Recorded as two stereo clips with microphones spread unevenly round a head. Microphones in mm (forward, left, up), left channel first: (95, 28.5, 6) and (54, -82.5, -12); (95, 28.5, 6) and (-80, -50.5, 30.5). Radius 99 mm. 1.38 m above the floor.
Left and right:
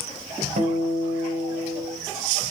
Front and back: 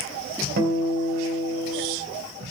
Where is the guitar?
120° right, 2.5 m.